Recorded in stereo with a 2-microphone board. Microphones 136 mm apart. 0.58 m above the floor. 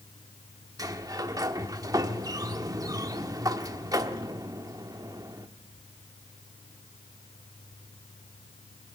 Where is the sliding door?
25° right (ahead or behind), 0.9 m.